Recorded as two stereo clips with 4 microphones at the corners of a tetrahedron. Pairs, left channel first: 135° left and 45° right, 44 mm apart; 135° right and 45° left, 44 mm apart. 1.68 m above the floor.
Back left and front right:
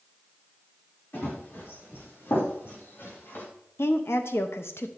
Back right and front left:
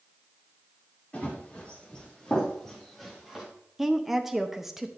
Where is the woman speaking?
125° left, 0.8 m.